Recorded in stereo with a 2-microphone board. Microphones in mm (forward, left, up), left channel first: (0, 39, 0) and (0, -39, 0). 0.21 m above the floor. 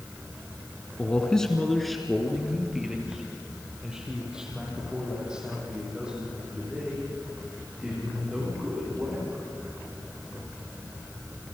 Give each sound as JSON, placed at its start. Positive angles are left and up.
{"t": 1.0, "sound": "a man speaking", "side_deg": 15, "distance_m": 1.7}